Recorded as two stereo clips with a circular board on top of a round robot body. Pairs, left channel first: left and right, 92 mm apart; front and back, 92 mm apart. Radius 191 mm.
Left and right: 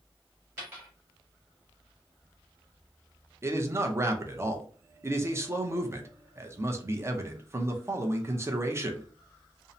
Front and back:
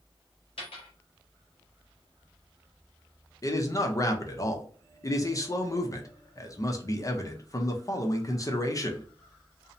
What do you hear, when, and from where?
0.6 s a dropped coin: 20° right, 1.0 m
3.4 s a man speaking: 40° right, 0.7 m